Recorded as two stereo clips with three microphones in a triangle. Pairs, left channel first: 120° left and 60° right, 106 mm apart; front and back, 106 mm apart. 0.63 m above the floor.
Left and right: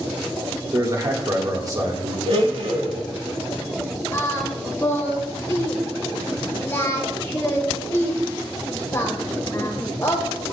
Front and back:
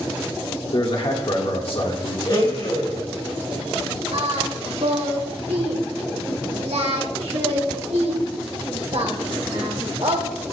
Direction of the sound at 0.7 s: 10° right.